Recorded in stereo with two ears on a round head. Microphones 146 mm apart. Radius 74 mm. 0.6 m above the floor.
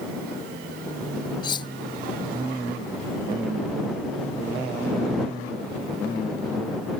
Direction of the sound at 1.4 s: 30° left (ahead or behind).